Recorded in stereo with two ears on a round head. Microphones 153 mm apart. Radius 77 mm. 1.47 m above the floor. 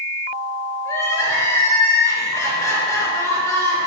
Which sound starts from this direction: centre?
Crying, at 0.8 s.